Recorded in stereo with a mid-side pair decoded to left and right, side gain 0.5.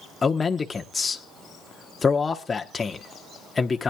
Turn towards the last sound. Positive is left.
turn(degrees=25)